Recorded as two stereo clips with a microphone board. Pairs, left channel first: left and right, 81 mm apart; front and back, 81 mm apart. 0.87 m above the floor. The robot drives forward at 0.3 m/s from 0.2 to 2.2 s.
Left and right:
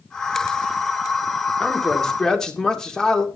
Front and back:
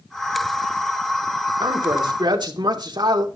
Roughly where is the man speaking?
Behind.